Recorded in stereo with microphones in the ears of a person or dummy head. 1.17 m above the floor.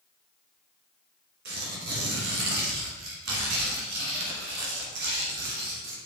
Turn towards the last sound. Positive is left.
turn(degrees=-45)  # may be behind; listen again after turning